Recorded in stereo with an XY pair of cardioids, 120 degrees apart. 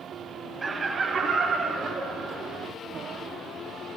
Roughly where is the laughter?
Ahead right.